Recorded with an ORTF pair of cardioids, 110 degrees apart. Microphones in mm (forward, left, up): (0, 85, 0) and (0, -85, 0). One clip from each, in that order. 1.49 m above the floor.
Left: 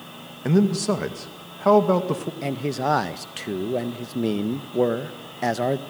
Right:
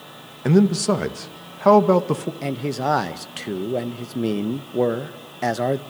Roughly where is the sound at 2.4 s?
Ahead.